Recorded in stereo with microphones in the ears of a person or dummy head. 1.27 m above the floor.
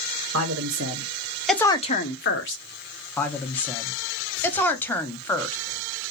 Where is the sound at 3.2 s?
10° left (ahead or behind), 0.6 m.